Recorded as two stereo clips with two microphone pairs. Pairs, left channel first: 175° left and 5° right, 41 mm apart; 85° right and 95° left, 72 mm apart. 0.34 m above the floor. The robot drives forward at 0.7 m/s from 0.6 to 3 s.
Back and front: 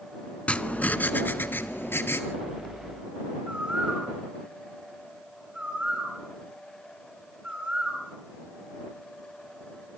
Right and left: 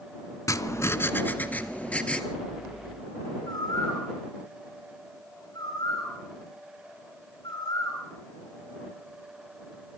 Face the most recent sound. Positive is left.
turn(degrees=-70)